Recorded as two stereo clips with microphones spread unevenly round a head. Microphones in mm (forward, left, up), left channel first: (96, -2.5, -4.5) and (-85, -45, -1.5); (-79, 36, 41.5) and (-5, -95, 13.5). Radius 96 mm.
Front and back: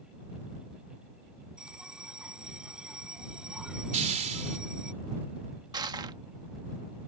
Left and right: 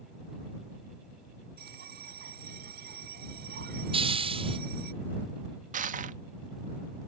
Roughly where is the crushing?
Right.